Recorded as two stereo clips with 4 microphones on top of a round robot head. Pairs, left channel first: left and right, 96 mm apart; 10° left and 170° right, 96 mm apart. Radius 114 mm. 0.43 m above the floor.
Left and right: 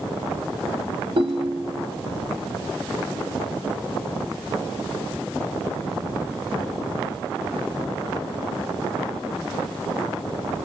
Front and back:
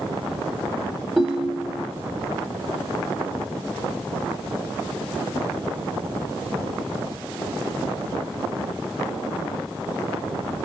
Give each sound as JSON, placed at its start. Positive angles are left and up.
{"t": 1.2, "sound": "a ringtone", "azimuth_deg": -95, "distance_m": 1.4}